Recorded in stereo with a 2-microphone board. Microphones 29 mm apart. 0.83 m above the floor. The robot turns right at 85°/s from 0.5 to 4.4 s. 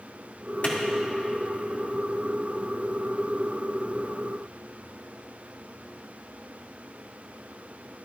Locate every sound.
0.6 s a clap: 50° left (ahead or behind), 2.0 m; by 0.8 s 40° left (ahead or behind), 2.0 m